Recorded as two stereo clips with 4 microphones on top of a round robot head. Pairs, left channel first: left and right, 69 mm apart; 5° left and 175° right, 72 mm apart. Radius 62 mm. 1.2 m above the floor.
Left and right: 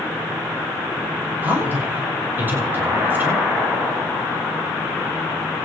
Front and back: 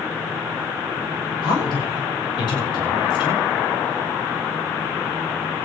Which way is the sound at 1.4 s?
25° right.